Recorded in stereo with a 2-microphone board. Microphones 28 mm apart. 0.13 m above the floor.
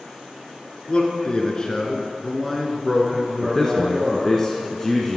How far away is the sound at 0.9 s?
About 1.8 m.